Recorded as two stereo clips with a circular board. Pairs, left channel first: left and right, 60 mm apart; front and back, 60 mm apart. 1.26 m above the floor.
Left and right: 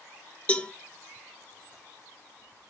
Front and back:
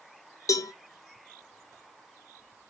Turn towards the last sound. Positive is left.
turn(degrees=25)